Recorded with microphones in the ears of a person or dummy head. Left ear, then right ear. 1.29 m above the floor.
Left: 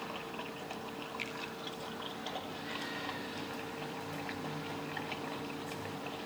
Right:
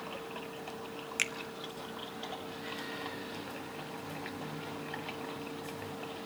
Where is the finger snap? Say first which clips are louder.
Right 10 dB; 45° right (ahead or behind), 0.7 m.